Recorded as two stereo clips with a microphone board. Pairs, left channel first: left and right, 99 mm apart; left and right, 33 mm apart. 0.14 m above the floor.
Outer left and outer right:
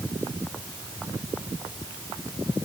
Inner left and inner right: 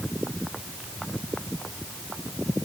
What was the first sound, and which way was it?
Only background noise.